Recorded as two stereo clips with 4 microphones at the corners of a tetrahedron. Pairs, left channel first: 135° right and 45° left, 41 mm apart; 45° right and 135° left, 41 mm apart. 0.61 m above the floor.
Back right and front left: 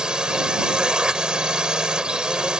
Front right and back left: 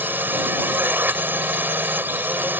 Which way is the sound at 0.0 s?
115° left.